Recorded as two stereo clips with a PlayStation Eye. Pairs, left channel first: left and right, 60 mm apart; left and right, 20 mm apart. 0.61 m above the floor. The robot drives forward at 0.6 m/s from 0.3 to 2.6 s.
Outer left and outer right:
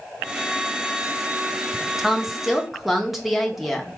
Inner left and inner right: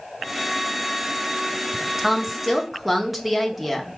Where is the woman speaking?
5° right (ahead or behind), 0.7 m.